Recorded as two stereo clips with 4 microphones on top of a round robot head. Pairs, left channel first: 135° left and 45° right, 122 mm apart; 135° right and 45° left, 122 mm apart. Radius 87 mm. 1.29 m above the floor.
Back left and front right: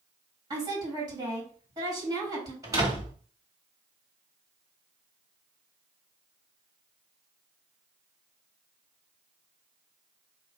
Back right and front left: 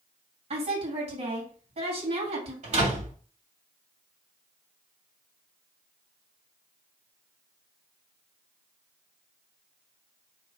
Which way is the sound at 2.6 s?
15° left.